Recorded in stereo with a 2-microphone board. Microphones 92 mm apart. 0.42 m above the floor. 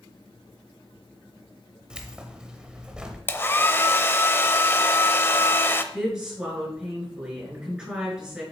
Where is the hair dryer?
20° left (ahead or behind), 0.7 m.